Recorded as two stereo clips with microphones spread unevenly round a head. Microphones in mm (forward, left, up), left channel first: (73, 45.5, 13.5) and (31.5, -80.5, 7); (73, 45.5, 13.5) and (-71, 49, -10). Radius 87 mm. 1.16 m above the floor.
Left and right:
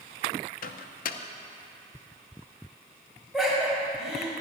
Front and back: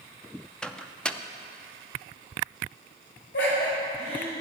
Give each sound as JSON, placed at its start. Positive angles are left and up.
{"t": 0.6, "sound": "a microwave", "azimuth_deg": 85, "distance_m": 0.6}
{"t": 3.3, "sound": "laughter", "azimuth_deg": -20, "distance_m": 6.0}